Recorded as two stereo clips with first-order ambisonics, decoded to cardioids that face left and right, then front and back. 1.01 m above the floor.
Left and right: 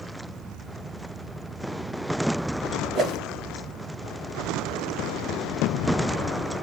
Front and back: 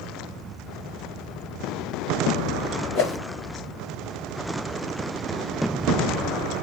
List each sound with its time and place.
3.0 s a whoosh: 25° right, 1.3 m